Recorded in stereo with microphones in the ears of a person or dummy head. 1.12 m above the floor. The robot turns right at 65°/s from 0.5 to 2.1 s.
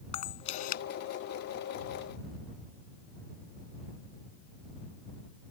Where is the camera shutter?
35° left (ahead or behind); by 0.8 s 60° left (ahead or behind).